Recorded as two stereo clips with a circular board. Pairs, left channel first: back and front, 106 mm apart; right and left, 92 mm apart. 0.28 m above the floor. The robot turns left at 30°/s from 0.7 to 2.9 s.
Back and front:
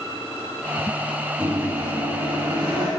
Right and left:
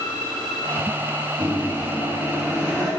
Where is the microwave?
80° left, 2.5 m; by 2.9 s 35° left, 2.5 m.